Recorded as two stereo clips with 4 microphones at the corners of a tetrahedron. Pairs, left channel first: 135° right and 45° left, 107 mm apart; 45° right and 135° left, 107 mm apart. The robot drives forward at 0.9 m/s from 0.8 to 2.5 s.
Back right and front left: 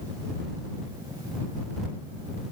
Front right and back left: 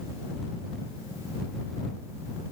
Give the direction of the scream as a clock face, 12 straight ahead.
I don't hear a scream.